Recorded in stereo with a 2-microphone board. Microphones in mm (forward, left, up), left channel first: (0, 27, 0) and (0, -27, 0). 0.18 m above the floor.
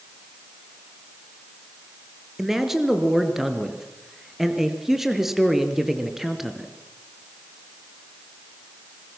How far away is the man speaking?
About 3 m.